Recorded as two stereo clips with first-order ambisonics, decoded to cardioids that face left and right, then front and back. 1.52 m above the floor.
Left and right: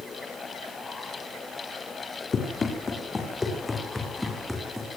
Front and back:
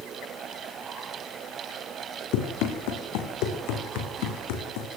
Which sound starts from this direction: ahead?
Running footsteps, at 2.3 s.